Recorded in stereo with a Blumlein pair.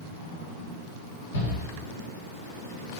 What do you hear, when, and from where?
1.3 s a shout: 70° left, 2.5 m